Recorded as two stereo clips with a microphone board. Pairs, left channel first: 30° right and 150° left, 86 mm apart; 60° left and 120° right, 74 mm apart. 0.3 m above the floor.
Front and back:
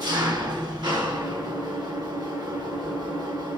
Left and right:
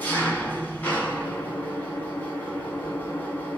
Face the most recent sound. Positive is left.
turn(degrees=120)